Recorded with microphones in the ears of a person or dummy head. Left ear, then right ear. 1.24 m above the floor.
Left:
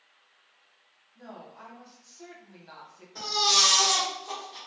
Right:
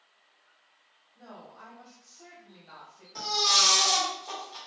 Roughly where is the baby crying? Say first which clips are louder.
Left 1 dB; right.